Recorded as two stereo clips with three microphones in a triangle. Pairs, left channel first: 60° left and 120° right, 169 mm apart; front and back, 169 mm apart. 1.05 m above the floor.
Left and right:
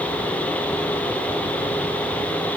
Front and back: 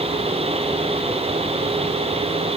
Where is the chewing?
No chewing in this recording.